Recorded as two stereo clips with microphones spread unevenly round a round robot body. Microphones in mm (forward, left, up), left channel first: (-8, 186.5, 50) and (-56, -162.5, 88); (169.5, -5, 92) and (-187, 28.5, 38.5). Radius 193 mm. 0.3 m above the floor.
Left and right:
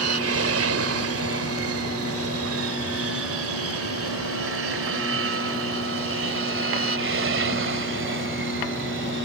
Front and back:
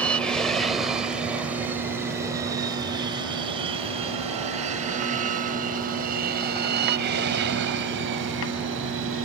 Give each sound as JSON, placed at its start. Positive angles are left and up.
{"t": 0.0, "sound": "an aircraft", "azimuth_deg": -105}